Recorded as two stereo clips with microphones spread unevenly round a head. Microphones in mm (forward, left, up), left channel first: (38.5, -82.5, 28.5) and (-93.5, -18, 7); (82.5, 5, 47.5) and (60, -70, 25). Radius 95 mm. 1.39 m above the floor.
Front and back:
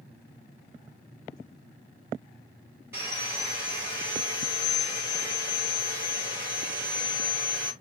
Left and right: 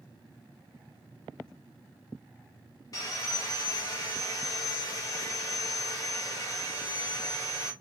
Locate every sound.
2.9 s sawing: 70° left, 0.7 m